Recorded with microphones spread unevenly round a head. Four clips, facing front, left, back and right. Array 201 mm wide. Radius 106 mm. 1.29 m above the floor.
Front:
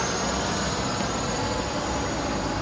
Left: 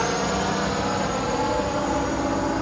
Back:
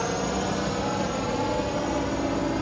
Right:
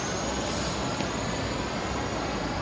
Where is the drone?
110° left; by 2.6 s 125° left.